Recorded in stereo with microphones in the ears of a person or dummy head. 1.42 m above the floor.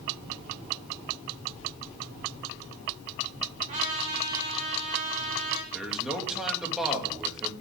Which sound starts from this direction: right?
A trumpet, at 3.7 s.